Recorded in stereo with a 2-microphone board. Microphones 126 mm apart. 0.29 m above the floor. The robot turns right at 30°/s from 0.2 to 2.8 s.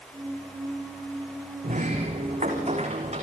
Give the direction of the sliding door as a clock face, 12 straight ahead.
3 o'clock.